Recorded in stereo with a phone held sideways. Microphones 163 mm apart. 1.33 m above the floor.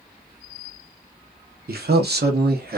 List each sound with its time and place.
1.7 s a man speaking: 70° right (ahead or behind), 0.7 m; by 2.8 s 65° right (ahead or behind), 1.0 m